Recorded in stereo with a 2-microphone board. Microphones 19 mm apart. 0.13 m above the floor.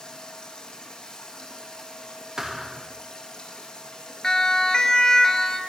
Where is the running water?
40° left (ahead or behind), 4.5 m.